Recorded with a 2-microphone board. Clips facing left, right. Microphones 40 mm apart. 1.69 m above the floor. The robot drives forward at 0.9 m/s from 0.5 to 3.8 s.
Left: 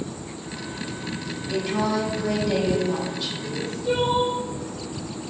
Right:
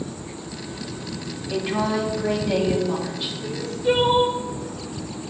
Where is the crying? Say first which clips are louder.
Right 5 dB; 60° right (ahead or behind), 3 m; by 4.4 s 65° right (ahead or behind), 3 m.